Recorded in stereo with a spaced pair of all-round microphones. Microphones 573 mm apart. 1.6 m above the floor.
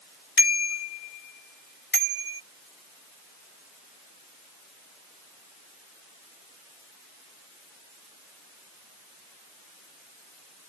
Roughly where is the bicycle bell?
Left.